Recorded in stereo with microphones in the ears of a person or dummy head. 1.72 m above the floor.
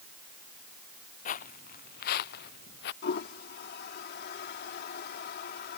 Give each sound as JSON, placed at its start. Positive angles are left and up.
{"t": 1.2, "sound": "footsteps", "side_deg": 55}
{"t": 3.0, "sound": "a toilet flushing", "side_deg": 70}